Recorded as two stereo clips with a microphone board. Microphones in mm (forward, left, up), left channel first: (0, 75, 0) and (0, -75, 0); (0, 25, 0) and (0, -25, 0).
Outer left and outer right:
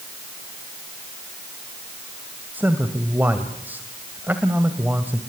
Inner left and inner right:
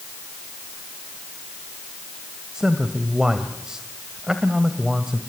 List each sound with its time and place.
2.5 s a man speaking: 10° right (ahead or behind), 1.7 m